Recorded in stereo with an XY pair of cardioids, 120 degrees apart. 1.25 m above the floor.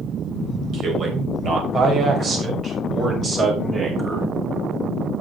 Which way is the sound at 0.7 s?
50° right.